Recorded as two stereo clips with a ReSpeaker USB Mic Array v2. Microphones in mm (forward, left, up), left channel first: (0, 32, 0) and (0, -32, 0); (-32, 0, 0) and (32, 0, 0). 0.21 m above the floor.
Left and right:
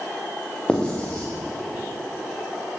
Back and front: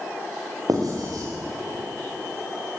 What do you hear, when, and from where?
0.7 s writing: 15° left, 8 m